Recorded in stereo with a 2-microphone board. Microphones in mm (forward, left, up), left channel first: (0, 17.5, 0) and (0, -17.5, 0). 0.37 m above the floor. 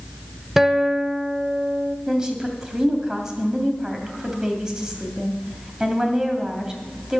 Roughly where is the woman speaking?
Centre.